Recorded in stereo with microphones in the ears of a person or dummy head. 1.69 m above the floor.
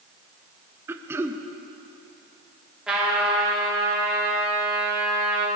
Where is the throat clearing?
10° right (ahead or behind), 0.7 m.